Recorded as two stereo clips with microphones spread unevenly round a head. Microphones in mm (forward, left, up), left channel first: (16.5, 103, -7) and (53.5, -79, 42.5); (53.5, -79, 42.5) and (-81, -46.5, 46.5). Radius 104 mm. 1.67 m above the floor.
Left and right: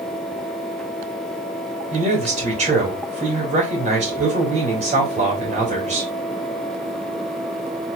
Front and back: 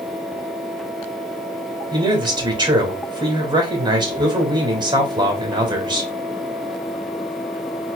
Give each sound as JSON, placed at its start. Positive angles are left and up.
{"t": 1.9, "sound": "a man speaking", "azimuth_deg": -135, "distance_m": 2.5}